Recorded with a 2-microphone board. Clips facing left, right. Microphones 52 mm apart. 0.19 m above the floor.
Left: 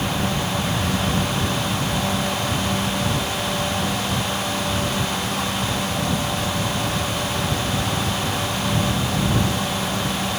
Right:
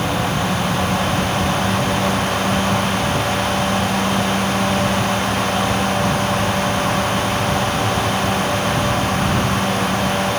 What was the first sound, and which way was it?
Only background noise.